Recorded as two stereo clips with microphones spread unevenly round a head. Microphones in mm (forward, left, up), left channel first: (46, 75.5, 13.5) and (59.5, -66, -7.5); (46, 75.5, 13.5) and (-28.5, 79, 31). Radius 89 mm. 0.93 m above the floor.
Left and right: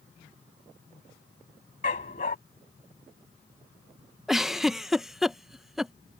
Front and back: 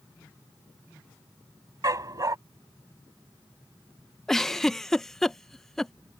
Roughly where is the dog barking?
Behind left.